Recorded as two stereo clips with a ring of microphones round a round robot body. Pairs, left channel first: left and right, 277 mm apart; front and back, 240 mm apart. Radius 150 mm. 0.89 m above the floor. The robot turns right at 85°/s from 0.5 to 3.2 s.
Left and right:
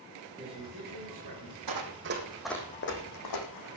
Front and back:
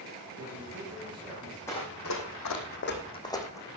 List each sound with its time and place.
0.4 s a man speaking: 160° right, 4 m; by 1.6 s 70° right, 4 m
1.7 s running footsteps: 80° right, 2.5 m; by 3.7 s 80° left, 3.5 m